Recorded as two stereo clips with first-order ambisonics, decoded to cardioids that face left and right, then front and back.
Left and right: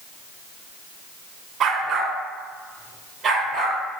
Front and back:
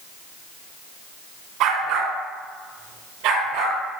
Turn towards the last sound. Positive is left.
turn(degrees=-160)